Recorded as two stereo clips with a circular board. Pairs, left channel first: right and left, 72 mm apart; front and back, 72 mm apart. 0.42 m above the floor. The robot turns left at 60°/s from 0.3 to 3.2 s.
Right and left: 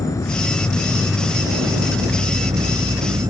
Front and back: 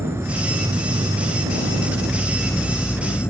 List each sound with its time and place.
0.0 s an insect: 130° right; by 3.3 s 60° left